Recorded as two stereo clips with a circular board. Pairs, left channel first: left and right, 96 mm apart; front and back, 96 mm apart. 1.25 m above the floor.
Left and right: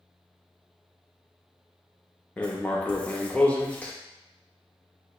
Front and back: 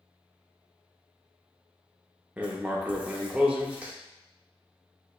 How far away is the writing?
About 0.5 m.